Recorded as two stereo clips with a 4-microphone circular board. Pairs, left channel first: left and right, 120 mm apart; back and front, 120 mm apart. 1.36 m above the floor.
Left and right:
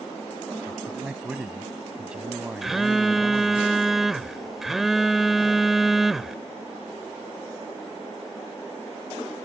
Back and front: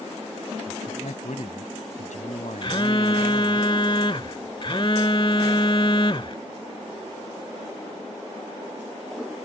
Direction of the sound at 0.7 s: 175° right.